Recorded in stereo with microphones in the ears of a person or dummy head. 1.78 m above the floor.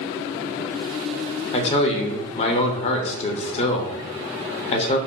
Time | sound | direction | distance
1.5 | a man speaking | 35° left (ahead or behind) | 0.6 m